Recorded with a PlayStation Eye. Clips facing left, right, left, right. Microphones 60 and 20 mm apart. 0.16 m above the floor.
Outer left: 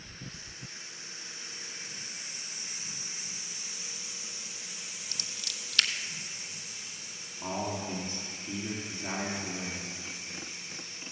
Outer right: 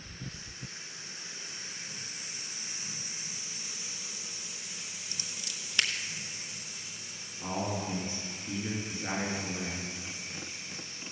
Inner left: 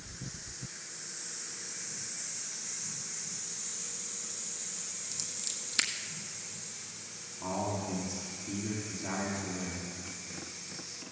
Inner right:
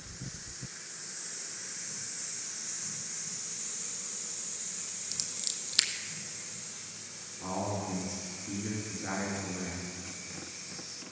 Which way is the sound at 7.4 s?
20° right (ahead or behind).